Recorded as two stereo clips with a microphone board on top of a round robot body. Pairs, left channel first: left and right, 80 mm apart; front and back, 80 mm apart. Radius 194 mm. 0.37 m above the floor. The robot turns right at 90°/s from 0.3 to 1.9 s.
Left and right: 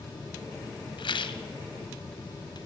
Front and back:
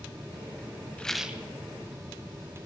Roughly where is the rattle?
Left.